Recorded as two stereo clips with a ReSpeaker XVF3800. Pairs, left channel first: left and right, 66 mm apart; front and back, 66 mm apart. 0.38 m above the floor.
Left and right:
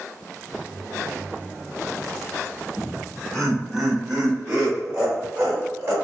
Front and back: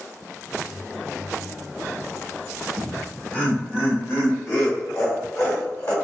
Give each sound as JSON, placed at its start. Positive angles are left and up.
{"t": 2.8, "sound": "laughter", "azimuth_deg": 70, "distance_m": 1.3}